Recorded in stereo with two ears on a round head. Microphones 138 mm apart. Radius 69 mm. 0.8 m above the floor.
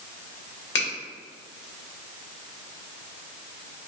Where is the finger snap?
85° left, 1.5 m.